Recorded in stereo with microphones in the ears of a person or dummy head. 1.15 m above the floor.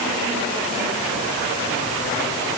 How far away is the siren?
I don't hear a siren.